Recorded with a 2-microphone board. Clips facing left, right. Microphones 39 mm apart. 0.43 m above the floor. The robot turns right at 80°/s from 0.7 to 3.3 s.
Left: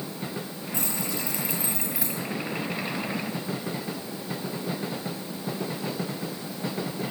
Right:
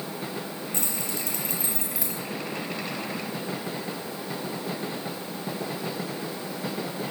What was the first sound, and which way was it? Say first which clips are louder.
Keys jangling: left 4 dB; 75° right (ahead or behind).